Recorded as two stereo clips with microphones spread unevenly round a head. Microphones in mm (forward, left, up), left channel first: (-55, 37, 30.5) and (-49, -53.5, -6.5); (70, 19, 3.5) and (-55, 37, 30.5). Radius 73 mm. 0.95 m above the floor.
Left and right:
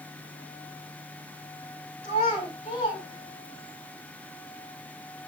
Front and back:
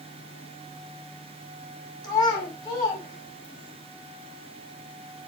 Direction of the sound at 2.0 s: 50° left.